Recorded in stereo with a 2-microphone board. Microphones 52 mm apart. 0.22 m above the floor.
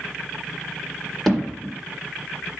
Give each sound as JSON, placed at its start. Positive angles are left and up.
{"t": 1.3, "sound": "hammering", "side_deg": 5, "distance_m": 2.0}